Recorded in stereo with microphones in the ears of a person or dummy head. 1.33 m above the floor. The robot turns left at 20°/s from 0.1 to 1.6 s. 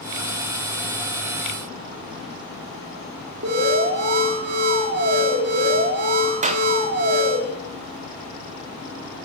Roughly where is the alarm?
Right.